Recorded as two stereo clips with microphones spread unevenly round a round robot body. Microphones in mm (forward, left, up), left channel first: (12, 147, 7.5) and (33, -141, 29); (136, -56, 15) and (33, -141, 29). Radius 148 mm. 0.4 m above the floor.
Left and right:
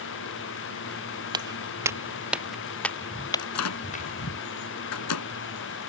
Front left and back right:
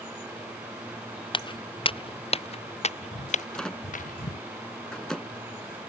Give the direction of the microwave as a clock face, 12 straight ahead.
8 o'clock.